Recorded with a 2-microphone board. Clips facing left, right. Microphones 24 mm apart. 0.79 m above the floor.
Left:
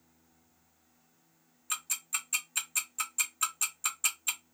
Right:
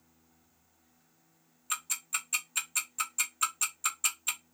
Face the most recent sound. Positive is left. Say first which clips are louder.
# right 1 dB
turn(degrees=-5)  # may be behind; listen again after turning